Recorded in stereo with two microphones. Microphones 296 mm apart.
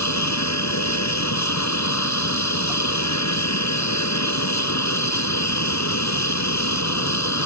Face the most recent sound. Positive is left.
turn(degrees=65)  # may be behind; listen again after turning